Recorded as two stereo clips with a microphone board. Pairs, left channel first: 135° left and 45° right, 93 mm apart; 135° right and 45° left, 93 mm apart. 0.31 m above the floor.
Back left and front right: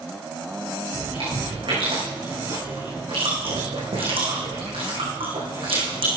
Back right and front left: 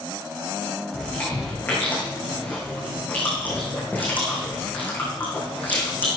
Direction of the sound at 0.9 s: 65° right.